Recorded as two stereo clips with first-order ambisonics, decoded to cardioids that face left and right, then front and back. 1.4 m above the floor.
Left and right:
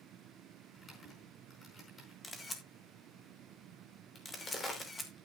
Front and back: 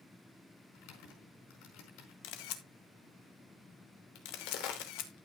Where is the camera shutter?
15° left, 1.7 m.